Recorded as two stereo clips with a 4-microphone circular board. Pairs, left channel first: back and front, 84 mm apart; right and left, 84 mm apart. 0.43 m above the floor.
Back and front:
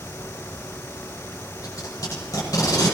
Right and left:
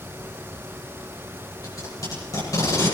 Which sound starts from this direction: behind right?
Tape being pulled, at 1.6 s.